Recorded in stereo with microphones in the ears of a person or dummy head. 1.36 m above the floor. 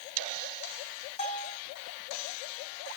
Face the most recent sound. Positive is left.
turn(degrees=35)  # may be behind; listen again after turning